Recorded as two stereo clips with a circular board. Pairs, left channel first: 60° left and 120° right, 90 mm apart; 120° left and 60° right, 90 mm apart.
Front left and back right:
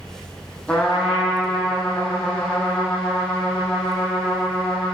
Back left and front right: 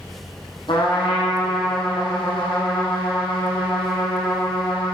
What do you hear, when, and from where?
0.7 s a trumpet: 135° left, 4.5 m